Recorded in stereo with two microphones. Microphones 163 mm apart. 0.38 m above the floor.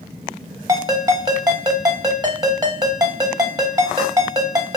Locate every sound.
0.7 s a ringtone: 25° right (ahead or behind), 0.7 m